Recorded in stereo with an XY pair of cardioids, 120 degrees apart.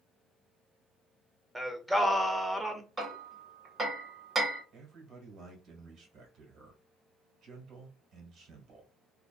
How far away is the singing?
About 0.5 m.